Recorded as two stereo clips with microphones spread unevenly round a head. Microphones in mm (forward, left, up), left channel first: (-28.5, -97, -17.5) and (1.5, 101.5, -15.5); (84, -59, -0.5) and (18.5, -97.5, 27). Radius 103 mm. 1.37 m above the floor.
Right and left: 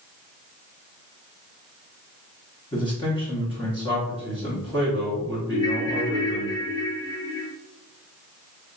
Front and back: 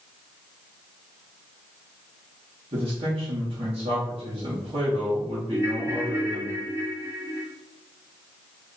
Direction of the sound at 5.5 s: 125° right.